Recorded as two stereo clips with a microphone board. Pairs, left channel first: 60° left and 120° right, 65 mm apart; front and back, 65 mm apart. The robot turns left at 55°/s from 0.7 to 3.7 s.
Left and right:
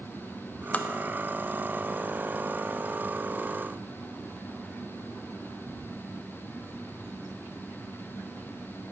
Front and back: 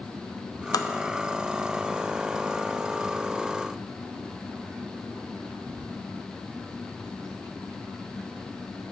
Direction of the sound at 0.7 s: Straight ahead.